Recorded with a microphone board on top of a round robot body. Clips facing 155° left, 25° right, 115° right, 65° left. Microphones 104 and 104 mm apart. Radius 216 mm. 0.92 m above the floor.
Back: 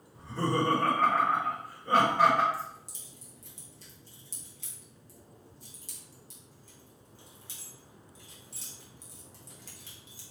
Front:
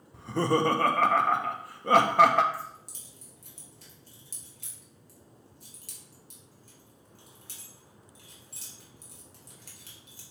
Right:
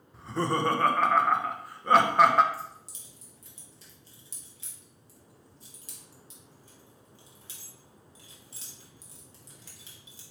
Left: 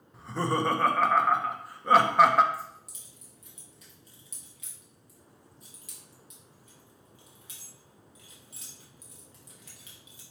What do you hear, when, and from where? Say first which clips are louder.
0.1 s laughter: front 4 dB, even; 20° right, 0.7 m
2.5 s keys jangling: back 1 dB, left 1 dB; 55° right, 1.5 m